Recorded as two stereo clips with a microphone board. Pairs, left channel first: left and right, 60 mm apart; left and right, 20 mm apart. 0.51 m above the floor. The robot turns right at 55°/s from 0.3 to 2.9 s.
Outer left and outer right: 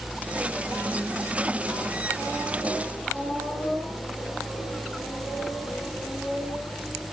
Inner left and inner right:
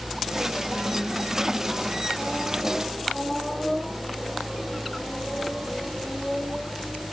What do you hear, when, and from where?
Only background noise.